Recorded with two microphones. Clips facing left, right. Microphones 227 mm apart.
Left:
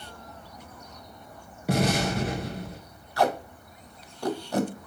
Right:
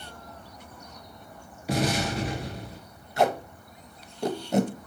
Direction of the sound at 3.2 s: 20° right (ahead or behind).